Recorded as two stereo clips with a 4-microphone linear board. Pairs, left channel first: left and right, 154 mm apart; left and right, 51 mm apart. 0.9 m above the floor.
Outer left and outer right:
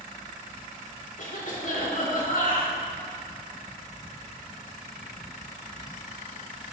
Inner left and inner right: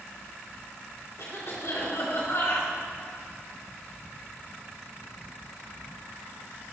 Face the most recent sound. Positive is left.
turn(degrees=65)  # may be behind; listen again after turning